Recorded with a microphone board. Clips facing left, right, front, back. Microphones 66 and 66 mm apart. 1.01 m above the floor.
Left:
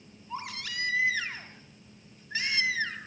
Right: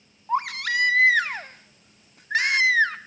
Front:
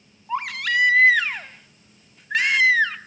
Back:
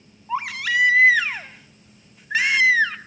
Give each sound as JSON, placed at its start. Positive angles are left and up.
{"t": 0.3, "sound": "a baby crying", "azimuth_deg": -95, "distance_m": 0.9}